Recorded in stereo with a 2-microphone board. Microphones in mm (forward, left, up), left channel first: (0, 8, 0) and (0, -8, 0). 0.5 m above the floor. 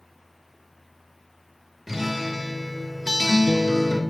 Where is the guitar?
20° right (ahead or behind), 0.8 m.